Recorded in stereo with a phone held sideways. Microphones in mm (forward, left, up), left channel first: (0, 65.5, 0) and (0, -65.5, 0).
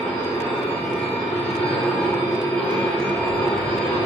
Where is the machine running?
10° left (ahead or behind), 0.8 m.